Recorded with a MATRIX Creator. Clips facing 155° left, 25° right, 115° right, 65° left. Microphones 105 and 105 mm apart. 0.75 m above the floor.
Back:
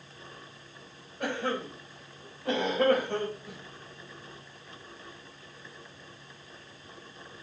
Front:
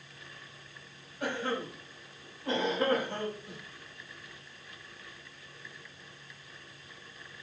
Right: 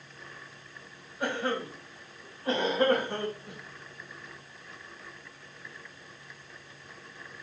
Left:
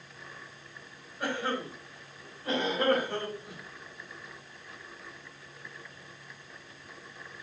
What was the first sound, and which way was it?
A cough, 165° left.